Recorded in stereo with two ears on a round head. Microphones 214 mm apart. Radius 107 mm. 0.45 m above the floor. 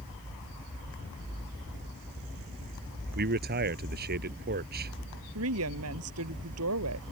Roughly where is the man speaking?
Right.